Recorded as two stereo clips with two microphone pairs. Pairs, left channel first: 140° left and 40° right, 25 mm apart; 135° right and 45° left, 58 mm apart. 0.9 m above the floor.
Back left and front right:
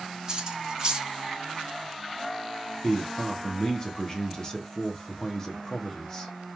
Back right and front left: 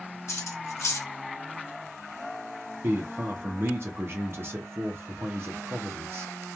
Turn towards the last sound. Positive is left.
turn(degrees=80)